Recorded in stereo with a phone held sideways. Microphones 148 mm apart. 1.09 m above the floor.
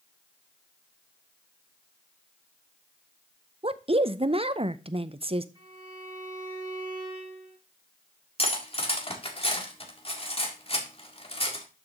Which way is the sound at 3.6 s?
40° right (ahead or behind).